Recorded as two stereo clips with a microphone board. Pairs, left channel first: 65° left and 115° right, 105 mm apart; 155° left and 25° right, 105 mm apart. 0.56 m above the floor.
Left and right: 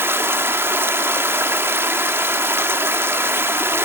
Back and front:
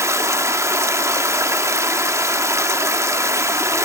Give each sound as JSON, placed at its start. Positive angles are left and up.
{"t": 0.0, "sound": "running water", "azimuth_deg": -60, "distance_m": 0.9}